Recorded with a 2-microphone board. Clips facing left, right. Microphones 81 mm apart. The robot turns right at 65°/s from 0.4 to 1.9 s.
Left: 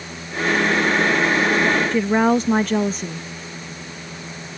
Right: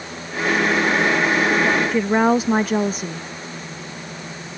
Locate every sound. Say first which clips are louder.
1.9 s a woman speaking: even; 5° right (ahead or behind)